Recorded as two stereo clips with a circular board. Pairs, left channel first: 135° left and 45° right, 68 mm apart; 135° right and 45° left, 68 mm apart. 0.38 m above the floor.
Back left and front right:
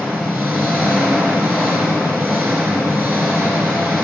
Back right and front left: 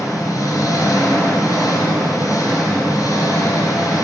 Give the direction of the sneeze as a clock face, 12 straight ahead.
I don't hear a sneeze.